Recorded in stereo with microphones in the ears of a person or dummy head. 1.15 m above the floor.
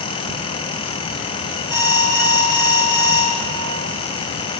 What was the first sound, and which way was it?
An alarm, 5° right (ahead or behind).